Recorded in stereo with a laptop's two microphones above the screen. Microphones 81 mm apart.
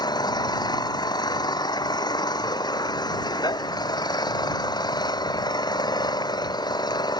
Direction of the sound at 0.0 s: 60° left (ahead or behind).